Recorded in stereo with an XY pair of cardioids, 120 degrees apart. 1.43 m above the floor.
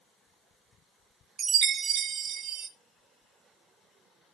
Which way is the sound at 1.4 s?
55° right.